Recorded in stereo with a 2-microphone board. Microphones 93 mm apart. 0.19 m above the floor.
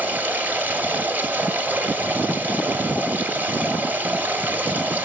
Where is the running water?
20° right (ahead or behind), 1.1 m.